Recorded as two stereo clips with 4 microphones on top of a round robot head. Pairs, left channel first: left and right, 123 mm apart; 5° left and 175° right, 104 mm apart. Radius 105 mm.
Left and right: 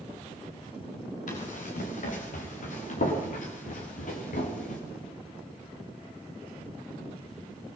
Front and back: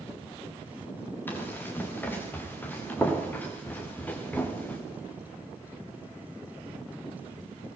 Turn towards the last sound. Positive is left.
turn(degrees=80)